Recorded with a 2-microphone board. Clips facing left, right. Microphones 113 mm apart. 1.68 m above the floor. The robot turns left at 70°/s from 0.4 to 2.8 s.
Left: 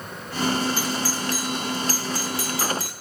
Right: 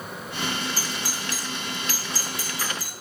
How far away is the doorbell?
About 1.5 m.